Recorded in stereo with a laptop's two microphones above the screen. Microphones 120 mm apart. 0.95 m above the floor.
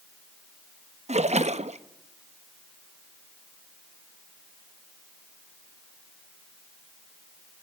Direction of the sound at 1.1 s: 80° right.